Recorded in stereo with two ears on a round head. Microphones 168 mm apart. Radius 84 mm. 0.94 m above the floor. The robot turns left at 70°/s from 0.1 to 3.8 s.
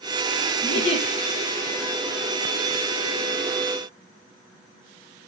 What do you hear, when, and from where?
0.6 s a giggle: 75° left, 5.5 m; by 1.1 s 45° left, 5.5 m